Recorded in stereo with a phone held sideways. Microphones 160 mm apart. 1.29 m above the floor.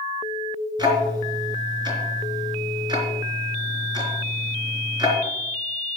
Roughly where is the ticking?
Right.